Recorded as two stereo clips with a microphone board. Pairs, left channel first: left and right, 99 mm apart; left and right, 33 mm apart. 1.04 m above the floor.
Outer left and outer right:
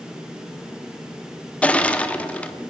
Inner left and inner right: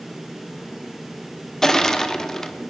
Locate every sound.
1.6 s crushing: 15° left (ahead or behind), 0.8 m